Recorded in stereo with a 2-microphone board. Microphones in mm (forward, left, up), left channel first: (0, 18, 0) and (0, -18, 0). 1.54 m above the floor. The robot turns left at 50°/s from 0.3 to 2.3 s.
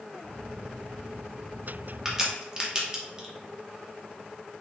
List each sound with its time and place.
2.0 s a crack: 10° right (ahead or behind), 0.8 m; by 3.3 s 20° right (ahead or behind), 0.8 m